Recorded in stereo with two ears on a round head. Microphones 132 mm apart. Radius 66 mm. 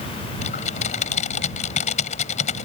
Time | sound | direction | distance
0.4 | typing on a keyboard | 50° left (ahead or behind) | ?